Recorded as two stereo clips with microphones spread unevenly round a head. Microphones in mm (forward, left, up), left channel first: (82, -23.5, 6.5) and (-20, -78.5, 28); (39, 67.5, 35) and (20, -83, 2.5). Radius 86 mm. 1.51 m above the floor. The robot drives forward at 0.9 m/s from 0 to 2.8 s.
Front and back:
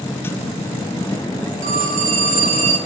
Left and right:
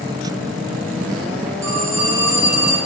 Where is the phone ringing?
175° right, 3.5 m.